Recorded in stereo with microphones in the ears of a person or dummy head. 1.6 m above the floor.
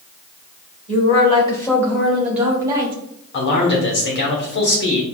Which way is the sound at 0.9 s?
40° left (ahead or behind).